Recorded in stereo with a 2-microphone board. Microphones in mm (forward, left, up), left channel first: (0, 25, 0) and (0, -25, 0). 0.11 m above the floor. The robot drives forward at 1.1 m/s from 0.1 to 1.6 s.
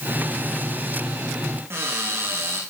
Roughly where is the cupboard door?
Right.